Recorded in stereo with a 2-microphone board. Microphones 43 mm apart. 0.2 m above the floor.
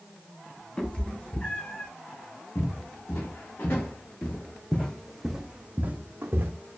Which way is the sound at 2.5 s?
60° left (ahead or behind).